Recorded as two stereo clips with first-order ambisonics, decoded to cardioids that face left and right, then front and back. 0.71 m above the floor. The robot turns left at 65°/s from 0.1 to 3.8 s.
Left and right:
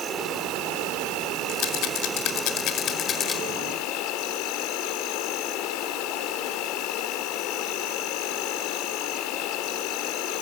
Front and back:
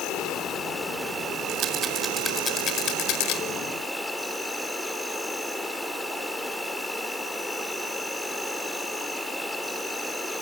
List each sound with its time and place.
0.0 s an insect: 35° right, 1.9 m; by 10.4 s 85° left, 1.9 m
1.5 s a rattle: 135° left, 1.6 m; by 3.4 s 10° left, 1.6 m